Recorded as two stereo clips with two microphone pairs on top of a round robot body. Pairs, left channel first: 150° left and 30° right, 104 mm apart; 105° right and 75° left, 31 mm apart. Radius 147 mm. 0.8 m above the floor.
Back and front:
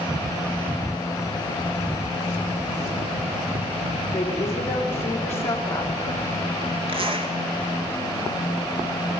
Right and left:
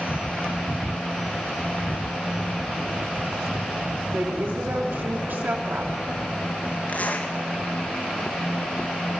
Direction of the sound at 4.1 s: 85° left.